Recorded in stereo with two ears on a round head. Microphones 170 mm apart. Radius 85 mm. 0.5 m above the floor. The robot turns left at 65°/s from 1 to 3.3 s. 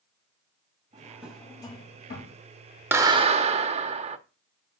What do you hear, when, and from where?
0.9 s a drawer: 20° right (ahead or behind), 1.8 m; by 2.4 s 65° left (ahead or behind), 1.8 m
2.9 s a clap: 10° right (ahead or behind), 0.8 m; by 4.2 s 30° right (ahead or behind), 0.8 m